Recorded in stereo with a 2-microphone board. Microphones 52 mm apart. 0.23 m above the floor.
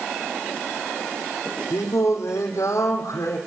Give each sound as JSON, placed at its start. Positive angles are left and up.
{"t": 1.7, "sound": "singing", "side_deg": 85, "distance_m": 3.5}